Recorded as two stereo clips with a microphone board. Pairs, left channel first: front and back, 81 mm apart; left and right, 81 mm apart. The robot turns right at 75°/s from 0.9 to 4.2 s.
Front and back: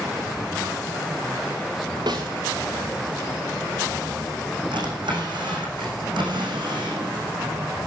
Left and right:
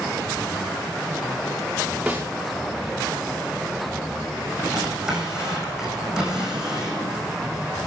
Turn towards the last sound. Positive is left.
turn(degrees=-170)